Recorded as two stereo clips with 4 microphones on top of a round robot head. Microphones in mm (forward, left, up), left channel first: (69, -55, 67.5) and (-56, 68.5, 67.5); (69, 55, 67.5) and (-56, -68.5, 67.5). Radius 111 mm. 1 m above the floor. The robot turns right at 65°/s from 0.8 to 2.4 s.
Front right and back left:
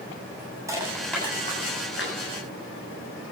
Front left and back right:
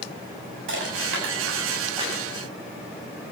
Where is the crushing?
150° right, 8.5 m; by 2.2 s 60° right, 8.5 m.